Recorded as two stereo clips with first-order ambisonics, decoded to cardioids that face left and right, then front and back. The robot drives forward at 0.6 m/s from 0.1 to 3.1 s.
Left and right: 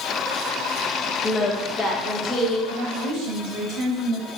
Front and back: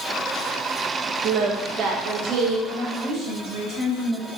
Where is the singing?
155° left, 1.1 m; by 2.6 s 170° left, 1.8 m.